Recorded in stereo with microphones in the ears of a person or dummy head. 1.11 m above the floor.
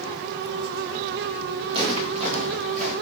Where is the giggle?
No giggle in this recording.